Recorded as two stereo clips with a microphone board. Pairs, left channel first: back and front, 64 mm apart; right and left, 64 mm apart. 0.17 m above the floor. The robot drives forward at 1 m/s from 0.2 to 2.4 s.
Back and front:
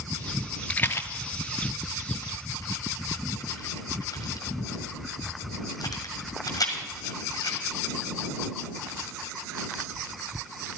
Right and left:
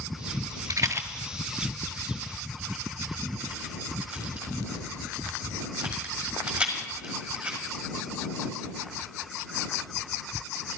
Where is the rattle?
110° left, 0.6 m; by 7.6 s 165° left, 2.0 m.